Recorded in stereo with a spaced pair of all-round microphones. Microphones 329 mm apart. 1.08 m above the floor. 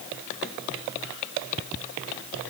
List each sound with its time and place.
Only background noise.